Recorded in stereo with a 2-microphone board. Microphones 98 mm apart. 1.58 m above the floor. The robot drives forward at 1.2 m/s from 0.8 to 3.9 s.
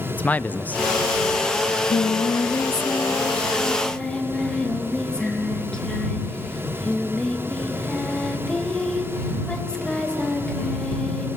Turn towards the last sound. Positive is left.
turn(degrees=10)  # may be behind; listen again after turning